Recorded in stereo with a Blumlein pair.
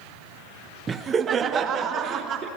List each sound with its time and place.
0.9 s laughter: 15° right, 1.1 m; by 2.5 s 30° right, 3.5 m